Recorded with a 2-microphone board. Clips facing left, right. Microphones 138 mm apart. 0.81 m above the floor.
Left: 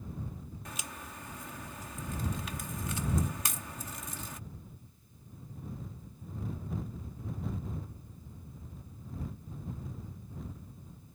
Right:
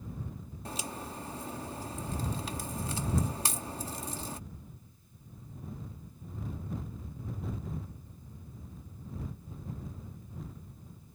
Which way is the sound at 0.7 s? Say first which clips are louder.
Right 8 dB; 30° right (ahead or behind).